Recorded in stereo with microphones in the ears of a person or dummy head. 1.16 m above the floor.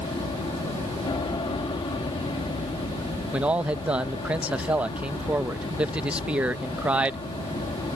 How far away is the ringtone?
I don't hear a ringtone.